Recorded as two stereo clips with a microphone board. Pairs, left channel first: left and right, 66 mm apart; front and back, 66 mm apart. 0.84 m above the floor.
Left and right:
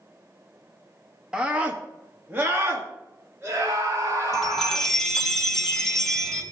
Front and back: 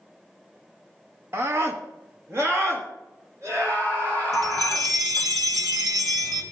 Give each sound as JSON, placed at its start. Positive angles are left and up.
{"t": 1.3, "sound": "a scream", "azimuth_deg": -165, "distance_m": 1.1}
{"t": 4.3, "sound": "a chime", "azimuth_deg": 175, "distance_m": 1.6}